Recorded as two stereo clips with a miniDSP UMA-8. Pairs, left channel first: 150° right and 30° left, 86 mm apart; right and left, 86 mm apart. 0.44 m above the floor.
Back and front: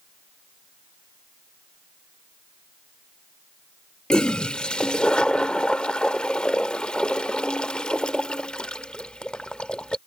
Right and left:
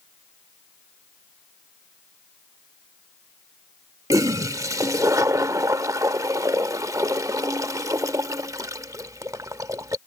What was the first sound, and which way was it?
A toilet flushing, 135° left.